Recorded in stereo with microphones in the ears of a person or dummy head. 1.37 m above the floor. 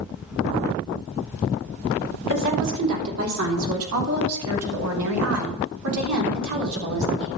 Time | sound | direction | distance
2.3 | a woman speaking | 65° right (ahead or behind) | 3.5 m